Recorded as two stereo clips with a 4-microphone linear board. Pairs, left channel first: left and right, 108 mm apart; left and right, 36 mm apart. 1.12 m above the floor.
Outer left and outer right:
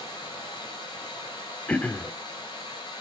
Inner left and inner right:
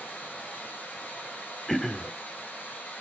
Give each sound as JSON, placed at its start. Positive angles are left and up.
{"t": 0.0, "sound": "running water", "side_deg": 50, "distance_m": 5.5}
{"t": 1.7, "sound": "throat clearing", "side_deg": 15, "distance_m": 1.0}